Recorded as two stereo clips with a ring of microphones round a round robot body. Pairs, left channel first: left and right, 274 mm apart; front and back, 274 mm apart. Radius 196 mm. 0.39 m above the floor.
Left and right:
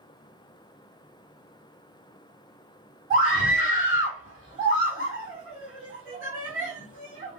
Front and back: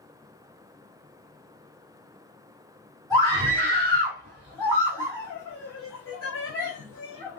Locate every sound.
3.1 s a scream: 50° right, 1.4 m